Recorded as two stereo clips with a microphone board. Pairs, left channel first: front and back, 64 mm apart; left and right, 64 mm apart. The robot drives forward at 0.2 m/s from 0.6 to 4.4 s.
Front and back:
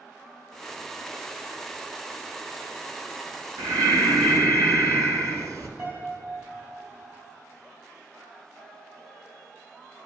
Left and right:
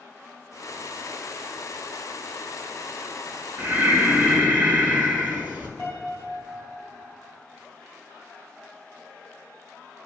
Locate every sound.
3.6 s breathing: 150° right, 0.9 m; by 5.7 s 155° right, 1.1 m
5.8 s a piano: 170° left, 2.5 m